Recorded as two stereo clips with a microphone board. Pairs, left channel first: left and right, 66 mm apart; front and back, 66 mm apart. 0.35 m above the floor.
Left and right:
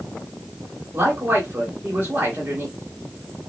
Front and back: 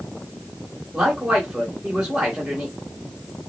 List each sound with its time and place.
0.9 s a man speaking: 105° right, 1.7 m